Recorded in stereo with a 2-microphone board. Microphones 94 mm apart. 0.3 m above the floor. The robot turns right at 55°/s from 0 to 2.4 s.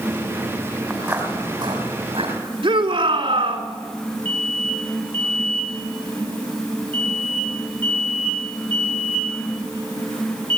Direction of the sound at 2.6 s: 70° right (ahead or behind).